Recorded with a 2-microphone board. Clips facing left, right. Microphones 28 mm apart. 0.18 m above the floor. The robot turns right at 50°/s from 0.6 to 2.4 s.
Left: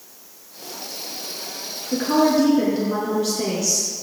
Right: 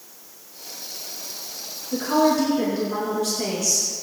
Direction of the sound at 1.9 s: 35° left (ahead or behind).